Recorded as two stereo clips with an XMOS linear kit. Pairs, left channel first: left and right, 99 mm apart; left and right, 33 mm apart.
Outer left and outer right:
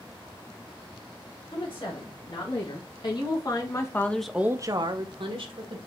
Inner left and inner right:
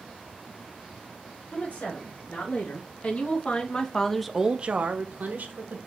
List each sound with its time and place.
1.5 s a woman speaking: 55° left (ahead or behind), 3 m; by 5.8 s 70° right (ahead or behind), 1.5 m